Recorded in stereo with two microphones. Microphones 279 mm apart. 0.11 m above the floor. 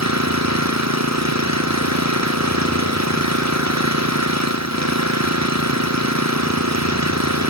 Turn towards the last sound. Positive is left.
turn(degrees=-80)